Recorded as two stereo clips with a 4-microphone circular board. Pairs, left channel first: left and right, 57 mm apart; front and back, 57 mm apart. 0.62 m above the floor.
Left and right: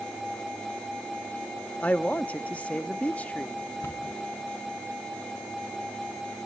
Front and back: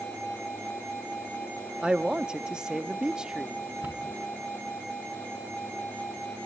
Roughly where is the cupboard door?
Behind left.